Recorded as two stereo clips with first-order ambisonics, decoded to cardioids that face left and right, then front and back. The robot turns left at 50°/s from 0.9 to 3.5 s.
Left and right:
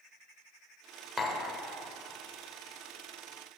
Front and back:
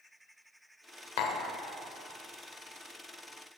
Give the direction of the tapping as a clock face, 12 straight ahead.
12 o'clock.